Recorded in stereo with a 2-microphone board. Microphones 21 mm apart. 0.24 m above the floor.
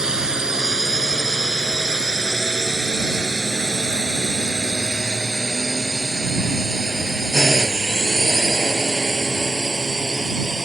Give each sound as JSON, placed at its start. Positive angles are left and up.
{"t": 0.0, "sound": "a drone", "side_deg": -35}